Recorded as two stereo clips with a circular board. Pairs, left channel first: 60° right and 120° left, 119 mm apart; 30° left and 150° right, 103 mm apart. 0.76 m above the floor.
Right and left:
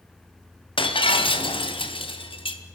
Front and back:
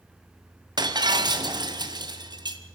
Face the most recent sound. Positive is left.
turn(degrees=-100)